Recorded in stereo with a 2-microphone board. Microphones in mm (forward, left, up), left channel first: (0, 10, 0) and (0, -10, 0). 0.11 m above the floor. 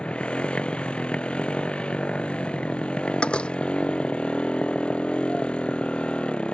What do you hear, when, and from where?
0.0 s a motorcycle: 75° left (ahead or behind)
3.2 s a door slam: 75° left (ahead or behind)